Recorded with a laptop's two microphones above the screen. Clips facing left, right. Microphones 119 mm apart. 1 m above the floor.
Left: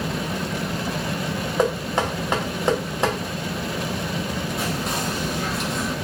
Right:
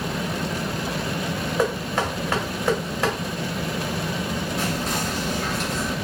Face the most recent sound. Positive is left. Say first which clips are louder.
# even
turn(degrees=15)  # may be behind; listen again after turning